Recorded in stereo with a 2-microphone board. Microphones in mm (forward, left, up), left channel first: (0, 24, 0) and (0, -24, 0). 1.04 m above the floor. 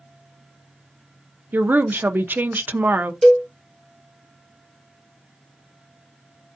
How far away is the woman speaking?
About 0.5 m.